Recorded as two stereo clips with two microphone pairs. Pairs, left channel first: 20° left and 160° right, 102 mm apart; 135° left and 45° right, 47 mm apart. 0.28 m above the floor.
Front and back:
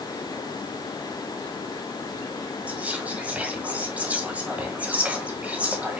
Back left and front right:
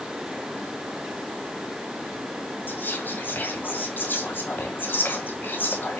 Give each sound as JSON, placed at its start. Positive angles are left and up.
{"t": 2.7, "sound": "whispering", "azimuth_deg": 130, "distance_m": 1.8}